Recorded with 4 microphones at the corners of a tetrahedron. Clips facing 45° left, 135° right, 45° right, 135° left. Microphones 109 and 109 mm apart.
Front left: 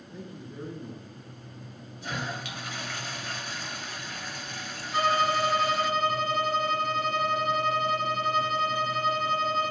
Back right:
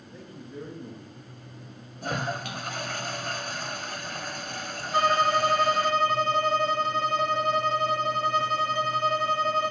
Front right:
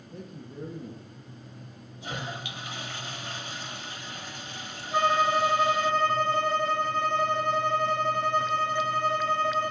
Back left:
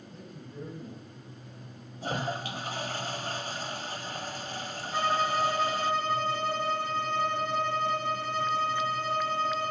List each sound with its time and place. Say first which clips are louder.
0.1 s a man speaking: even, front right 5 dB; 25° right, 2 m
2.0 s a toilet flushing: back right 4 dB, back left 4 dB; 175° right, 0.7 m
4.9 s a violin: back right 2 dB, front right 4 dB; 75° right, 1.8 m